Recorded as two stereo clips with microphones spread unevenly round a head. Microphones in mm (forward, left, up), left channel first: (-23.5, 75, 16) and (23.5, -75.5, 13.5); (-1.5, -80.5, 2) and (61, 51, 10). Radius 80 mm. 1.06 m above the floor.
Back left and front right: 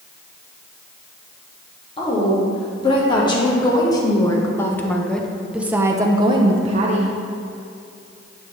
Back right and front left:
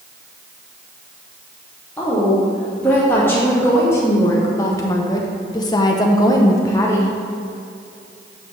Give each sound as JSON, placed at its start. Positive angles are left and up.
{"t": 2.0, "sound": "a woman speaking", "azimuth_deg": 165, "distance_m": 2.5}